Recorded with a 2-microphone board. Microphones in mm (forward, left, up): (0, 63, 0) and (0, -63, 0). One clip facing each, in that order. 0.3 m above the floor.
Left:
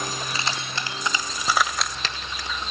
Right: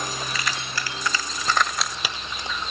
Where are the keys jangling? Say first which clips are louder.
Even; 30° left (ahead or behind), 1.7 m; by 2.5 s 30° right (ahead or behind), 0.9 m.